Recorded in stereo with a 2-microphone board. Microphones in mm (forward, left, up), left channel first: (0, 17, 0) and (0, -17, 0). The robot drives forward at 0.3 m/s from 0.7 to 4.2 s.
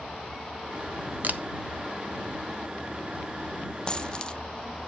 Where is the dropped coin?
25° left (ahead or behind), 0.5 m.